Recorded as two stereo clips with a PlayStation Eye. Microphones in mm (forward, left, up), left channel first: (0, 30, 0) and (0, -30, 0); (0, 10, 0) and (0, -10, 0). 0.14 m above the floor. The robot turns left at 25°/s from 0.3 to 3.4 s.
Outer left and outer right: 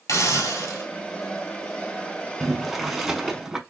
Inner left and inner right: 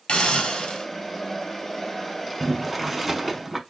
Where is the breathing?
No breathing in this recording.